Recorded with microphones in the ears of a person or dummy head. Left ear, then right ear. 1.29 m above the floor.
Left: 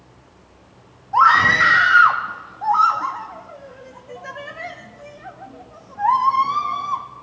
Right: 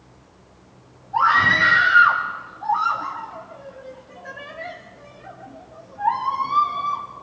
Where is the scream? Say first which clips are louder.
Left 3 dB; 70° left (ahead or behind), 2.5 m.